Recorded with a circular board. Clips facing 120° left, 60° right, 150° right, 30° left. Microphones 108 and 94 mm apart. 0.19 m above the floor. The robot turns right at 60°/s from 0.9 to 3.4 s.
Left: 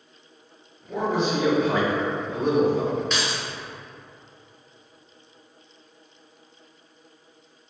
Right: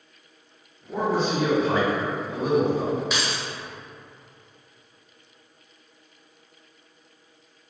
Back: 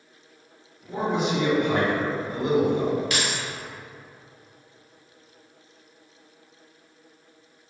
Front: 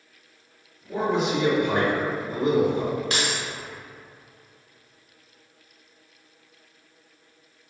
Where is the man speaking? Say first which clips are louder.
Even, front 1 dB; 65° right, 1.6 m; by 3.0 s 60° left, 1.6 m.